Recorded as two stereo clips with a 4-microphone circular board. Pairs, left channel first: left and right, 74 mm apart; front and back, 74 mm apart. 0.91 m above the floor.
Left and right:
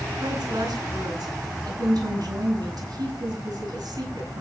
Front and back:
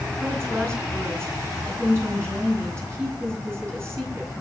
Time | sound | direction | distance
0.2 | a woman speaking | 125° right | 9 m